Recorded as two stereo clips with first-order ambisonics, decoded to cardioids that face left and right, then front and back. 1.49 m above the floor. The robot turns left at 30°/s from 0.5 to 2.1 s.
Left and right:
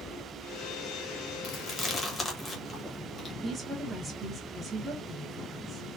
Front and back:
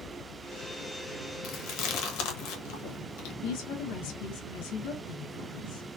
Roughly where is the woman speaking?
Ahead.